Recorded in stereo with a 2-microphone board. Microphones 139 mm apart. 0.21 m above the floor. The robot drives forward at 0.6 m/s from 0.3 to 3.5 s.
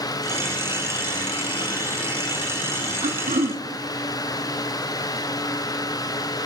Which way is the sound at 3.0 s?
60° right (ahead or behind).